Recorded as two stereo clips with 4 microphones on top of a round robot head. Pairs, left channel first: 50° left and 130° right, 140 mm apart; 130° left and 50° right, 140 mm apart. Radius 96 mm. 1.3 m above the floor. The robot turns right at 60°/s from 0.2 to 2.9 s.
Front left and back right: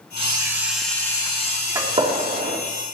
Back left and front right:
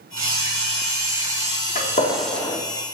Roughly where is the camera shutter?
Right.